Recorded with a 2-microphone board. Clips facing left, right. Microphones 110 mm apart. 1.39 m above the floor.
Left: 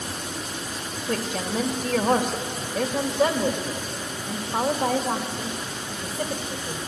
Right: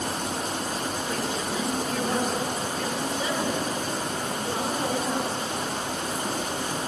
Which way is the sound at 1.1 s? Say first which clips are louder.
Left 6 dB; 60° left (ahead or behind).